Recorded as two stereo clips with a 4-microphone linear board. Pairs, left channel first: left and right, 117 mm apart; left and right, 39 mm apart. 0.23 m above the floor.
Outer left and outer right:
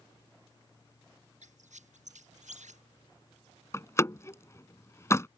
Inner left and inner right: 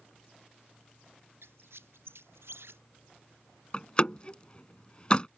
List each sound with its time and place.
1.4 s a squeak: 90° right
3.7 s a door slam: 25° left (ahead or behind)